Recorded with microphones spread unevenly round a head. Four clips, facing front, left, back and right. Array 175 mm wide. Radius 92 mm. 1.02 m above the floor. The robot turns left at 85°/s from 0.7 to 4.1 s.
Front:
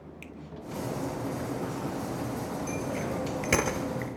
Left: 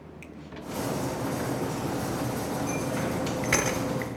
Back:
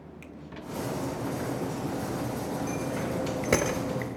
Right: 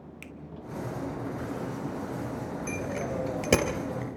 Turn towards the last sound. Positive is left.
turn(degrees=-175)